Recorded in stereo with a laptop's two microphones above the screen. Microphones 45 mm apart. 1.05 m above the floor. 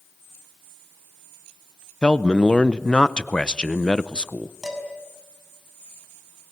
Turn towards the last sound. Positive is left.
turn(degrees=-10)  # may be behind; listen again after turning